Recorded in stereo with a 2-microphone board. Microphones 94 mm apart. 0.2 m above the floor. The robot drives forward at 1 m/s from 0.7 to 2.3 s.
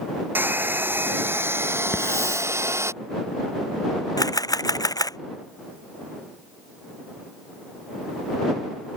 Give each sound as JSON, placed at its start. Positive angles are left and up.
{"t": 0.3, "sound": "a hair dryer", "side_deg": -20}
{"t": 1.9, "sound": "a hiss", "side_deg": 30}
{"t": 4.2, "sound": "a camera shutter", "side_deg": 40}